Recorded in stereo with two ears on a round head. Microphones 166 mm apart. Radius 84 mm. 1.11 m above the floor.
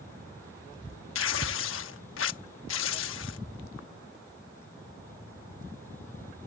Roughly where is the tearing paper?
Left.